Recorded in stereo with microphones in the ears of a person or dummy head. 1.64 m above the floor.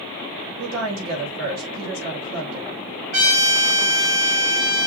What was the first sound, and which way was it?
A woman speaking, 75° right (ahead or behind).